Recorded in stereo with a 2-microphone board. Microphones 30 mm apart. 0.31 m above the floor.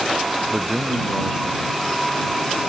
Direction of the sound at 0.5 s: 25° right (ahead or behind).